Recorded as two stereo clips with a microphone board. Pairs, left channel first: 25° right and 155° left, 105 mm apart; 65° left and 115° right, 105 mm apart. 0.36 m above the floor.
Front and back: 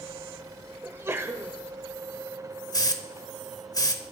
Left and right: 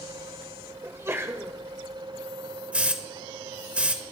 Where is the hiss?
45° right, 0.9 m.